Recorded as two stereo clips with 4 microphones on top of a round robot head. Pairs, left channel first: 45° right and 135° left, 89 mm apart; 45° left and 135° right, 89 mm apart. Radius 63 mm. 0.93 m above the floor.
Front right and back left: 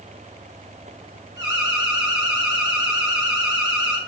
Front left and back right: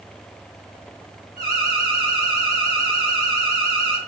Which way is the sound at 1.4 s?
Straight behind.